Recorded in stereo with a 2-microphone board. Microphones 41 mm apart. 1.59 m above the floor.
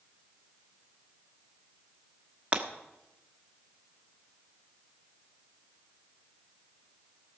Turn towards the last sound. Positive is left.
turn(degrees=-30)  # may be behind; listen again after turning